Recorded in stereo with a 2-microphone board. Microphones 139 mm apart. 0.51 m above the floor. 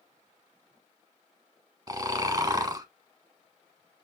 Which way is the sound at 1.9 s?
25° right (ahead or behind).